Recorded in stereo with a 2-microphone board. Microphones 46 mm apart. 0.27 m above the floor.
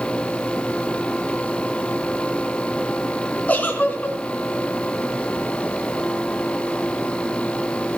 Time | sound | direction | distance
3.5 | a giggle | 30° left (ahead or behind) | 3 m